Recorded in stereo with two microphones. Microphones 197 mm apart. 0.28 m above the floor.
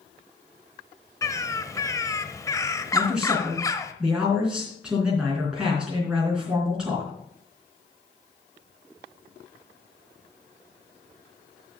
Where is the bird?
15° left (ahead or behind), 1.0 m.